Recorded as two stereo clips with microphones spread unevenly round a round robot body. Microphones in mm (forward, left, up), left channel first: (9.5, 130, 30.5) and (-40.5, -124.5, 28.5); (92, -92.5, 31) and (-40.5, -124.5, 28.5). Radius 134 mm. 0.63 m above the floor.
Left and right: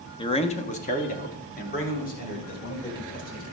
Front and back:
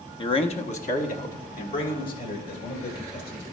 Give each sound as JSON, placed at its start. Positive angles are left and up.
{"t": 0.2, "sound": "a man speaking", "azimuth_deg": 20, "distance_m": 0.7}